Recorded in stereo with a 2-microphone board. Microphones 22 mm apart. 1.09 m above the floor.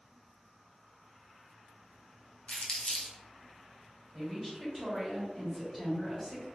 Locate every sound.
2.5 s crumpling: 55° left (ahead or behind), 0.9 m
4.1 s a woman speaking: 5° left (ahead or behind), 2.0 m